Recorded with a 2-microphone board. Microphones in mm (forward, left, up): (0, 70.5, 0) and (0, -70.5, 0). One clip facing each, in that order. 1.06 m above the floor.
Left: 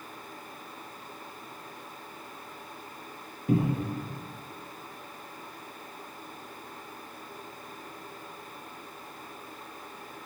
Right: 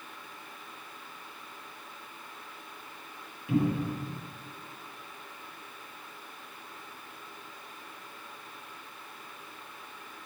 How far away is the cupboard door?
About 1.2 m.